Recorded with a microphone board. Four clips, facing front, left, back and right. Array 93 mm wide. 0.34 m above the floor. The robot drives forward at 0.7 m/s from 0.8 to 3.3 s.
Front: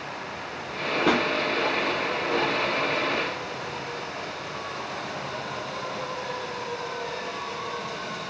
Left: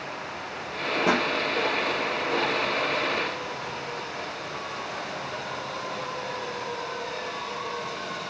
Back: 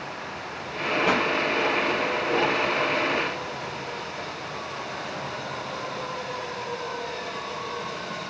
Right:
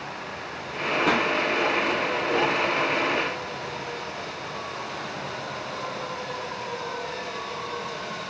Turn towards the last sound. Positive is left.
turn(degrees=45)